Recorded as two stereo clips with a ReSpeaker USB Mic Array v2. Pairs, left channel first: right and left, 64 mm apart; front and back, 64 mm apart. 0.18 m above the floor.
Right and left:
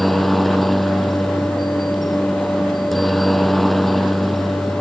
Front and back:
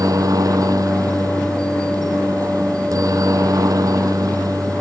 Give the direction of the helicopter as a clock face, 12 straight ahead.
6 o'clock.